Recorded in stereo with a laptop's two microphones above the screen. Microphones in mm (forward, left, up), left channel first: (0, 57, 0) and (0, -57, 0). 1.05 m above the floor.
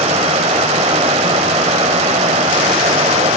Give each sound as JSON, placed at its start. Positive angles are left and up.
{"t": 0.0, "sound": "running water", "side_deg": -85, "distance_m": 3.0}